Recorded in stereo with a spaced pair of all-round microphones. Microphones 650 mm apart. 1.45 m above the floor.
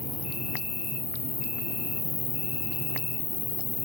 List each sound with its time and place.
0.0 s an insect: 75° left (ahead or behind), 1.1 m